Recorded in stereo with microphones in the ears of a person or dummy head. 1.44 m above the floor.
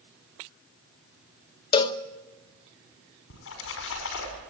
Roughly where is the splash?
Left.